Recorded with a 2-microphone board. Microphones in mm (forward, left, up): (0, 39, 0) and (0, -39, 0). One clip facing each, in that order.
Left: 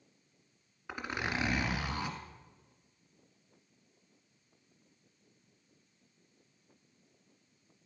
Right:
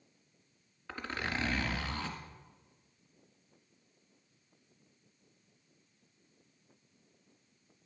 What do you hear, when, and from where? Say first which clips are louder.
0.9 s a zipper: left 1 dB; 15° left (ahead or behind), 1.7 m